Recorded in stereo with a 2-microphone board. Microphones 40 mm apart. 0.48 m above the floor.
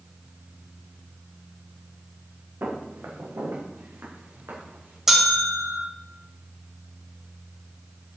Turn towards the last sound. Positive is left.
turn(degrees=-10)  # may be behind; listen again after turning